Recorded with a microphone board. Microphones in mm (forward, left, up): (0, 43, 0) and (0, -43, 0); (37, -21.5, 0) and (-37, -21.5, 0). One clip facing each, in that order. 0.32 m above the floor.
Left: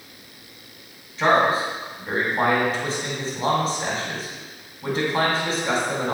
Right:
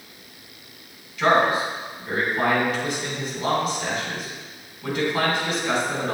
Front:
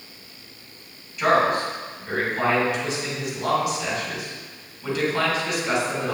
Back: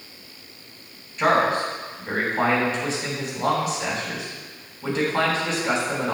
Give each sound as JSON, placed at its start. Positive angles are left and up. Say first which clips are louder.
{"t": 1.2, "sound": "a man speaking", "louder": "even, even", "azimuth_deg": 135, "distance_m": 2.5}